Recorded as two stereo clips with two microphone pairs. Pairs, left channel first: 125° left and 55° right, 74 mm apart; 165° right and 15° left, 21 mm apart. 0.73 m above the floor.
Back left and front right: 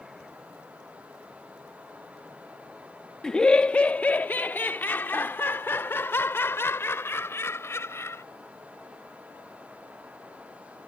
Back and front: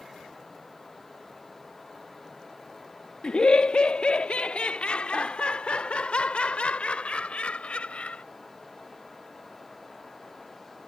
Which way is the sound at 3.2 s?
155° right.